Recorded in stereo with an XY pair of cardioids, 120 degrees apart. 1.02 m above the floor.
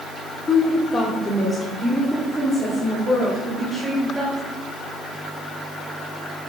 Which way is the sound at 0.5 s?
30° left.